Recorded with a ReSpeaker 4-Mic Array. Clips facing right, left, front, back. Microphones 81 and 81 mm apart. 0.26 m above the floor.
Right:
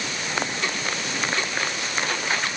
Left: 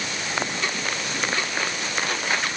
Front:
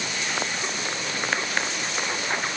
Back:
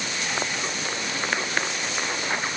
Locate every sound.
Only background noise.